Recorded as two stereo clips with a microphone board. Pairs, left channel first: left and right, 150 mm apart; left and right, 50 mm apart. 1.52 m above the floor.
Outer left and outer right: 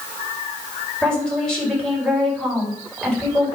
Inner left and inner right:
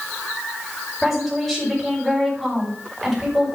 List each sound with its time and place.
1.0 s a woman speaking: 5° left (ahead or behind), 6 m